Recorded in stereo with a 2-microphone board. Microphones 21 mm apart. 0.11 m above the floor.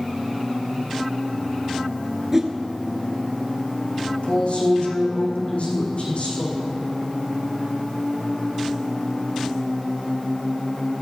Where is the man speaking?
80° left, 5 m.